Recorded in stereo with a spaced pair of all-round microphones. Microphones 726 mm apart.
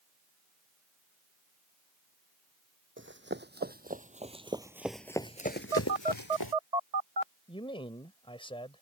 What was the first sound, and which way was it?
Running footsteps, 15° right (ahead or behind).